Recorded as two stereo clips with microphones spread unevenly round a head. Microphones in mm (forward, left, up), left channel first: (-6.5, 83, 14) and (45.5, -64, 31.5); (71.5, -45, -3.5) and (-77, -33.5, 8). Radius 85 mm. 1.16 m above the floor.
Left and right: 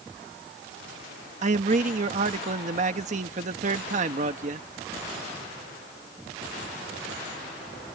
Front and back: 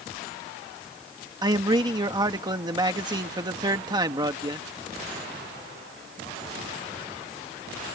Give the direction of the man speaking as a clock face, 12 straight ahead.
4 o'clock.